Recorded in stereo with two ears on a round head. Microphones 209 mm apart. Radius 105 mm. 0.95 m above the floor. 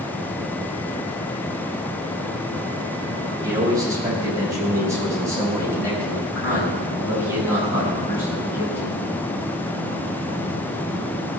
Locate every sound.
3.4 s a man speaking: 15° right (ahead or behind), 4 m; by 9.0 s 10° right (ahead or behind), 7.5 m